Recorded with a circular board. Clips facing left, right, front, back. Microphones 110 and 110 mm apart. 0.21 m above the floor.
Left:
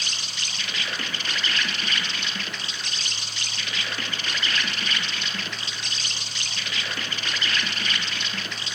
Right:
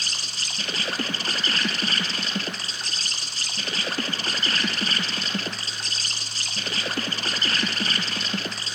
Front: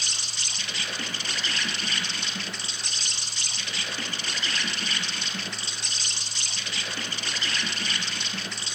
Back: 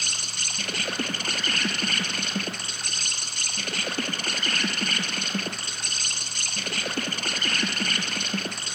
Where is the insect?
145° right, 1.4 m.